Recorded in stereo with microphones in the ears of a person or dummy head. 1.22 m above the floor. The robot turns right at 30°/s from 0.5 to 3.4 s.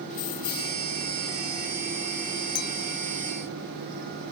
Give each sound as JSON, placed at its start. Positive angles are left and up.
{"t": 0.1, "sound": "keys jangling", "side_deg": 50}
{"t": 2.5, "sound": "a clink", "side_deg": 60}